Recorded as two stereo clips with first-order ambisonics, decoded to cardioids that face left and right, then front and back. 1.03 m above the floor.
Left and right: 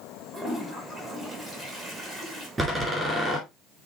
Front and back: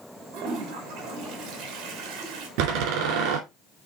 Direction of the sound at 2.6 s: 175° right.